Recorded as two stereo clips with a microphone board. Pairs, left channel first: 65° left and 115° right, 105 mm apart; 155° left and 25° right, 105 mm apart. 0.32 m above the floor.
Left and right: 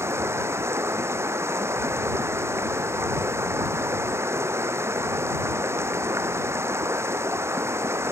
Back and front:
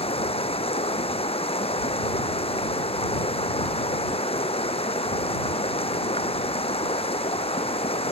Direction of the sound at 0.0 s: Straight behind.